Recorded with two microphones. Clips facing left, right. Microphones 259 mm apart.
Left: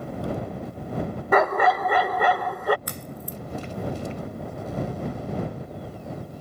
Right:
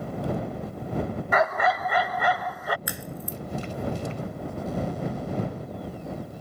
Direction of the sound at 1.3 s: 60° left (ahead or behind).